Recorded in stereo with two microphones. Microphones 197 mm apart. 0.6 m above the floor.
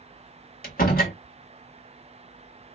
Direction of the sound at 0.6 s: 45° left (ahead or behind).